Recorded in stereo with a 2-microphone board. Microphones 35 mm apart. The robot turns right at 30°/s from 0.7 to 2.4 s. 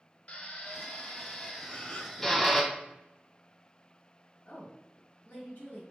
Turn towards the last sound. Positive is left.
turn(degrees=45)  # may be behind; listen again after turning